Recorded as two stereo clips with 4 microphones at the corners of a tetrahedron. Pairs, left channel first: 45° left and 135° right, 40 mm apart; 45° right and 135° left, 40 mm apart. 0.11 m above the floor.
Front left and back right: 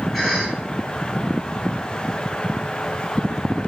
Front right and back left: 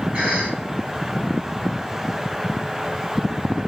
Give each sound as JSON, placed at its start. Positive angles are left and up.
{"t": 0.1, "sound": "a cough", "azimuth_deg": 125, "distance_m": 1.8}